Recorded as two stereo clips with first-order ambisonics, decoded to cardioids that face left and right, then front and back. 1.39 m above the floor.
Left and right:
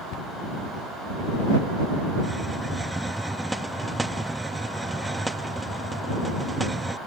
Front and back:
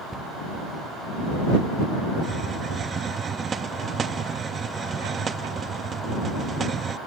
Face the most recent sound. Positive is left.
turn(degrees=-165)